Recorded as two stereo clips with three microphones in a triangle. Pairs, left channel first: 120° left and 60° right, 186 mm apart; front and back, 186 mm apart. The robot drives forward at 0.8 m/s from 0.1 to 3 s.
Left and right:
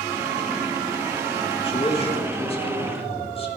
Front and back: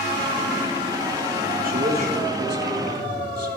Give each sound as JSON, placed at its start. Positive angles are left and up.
{"t": 1.6, "sound": "a man speaking", "azimuth_deg": 170, "distance_m": 1.3}